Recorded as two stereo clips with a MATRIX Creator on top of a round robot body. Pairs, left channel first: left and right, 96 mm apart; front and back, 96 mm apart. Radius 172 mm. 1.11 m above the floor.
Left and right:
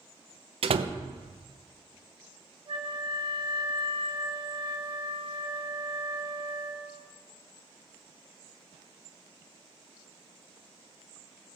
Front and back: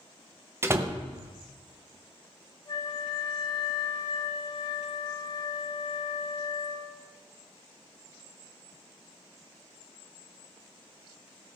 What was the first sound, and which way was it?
A door slam, 115° right.